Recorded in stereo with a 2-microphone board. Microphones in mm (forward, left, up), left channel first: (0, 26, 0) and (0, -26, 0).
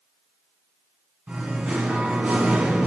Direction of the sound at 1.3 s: 30° right (ahead or behind).